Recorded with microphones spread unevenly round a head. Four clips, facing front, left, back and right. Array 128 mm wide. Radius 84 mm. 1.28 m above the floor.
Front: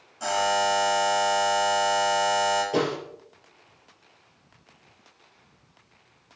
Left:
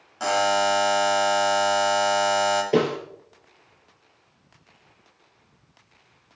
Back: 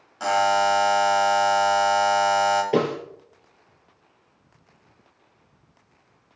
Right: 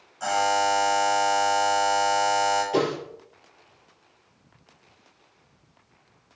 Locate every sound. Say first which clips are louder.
0.2 s a buzzer: left 1 dB, back 4 dB; 100° left, 2.5 m
2.7 s a snare drum: left 3 dB, back 3 dB; 125° left, 7 m